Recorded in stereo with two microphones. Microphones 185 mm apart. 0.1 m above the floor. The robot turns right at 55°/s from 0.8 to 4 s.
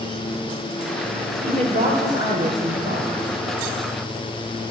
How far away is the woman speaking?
About 9.5 m.